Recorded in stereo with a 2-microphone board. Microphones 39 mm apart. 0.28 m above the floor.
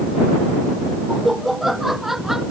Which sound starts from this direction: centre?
Laughter, at 1.1 s.